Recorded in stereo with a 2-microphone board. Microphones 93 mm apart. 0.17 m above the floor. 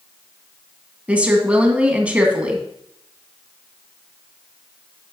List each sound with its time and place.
1.1 s a woman speaking: 15° right (ahead or behind), 1.4 m